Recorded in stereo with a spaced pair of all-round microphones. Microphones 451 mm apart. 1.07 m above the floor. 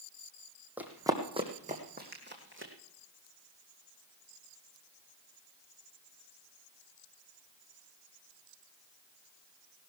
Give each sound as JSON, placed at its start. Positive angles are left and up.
{"t": 0.8, "sound": "running footsteps", "side_deg": -5, "distance_m": 2.5}